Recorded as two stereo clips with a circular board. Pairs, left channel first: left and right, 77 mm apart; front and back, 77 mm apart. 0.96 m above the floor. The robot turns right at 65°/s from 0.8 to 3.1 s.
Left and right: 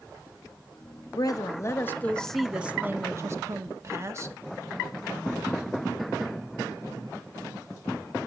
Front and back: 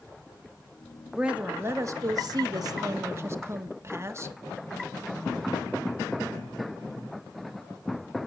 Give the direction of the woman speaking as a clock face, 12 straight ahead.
9 o'clock.